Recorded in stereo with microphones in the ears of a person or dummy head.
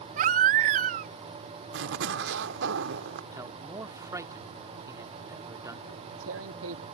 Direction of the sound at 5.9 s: 85° right.